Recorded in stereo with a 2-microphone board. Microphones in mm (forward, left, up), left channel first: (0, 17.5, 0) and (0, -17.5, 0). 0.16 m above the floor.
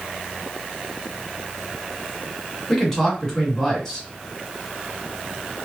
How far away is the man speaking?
About 1.5 m.